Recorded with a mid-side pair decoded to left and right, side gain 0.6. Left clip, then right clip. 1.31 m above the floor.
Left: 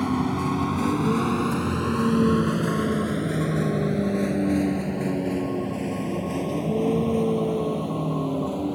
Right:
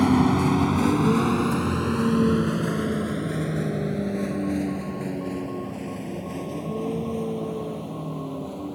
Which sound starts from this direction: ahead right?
A vehicle, at 0.0 s.